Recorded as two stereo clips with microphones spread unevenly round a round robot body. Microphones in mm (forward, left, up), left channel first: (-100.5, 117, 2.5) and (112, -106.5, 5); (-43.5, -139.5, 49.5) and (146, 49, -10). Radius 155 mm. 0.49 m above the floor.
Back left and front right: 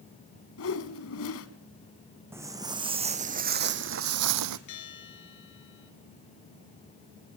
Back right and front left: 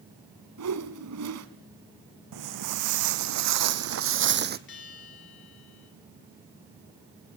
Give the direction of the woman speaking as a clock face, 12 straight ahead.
I don't hear a woman speaking.